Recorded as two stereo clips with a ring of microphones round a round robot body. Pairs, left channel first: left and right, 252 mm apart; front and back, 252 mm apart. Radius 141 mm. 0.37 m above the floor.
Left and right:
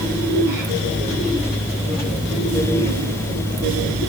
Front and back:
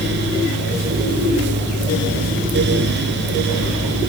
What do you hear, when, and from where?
Only background noise.